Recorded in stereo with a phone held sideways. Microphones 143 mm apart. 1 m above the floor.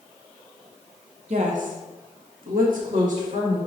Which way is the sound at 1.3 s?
50° right (ahead or behind).